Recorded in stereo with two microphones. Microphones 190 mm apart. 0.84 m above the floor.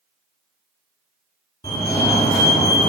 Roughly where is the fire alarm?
Left.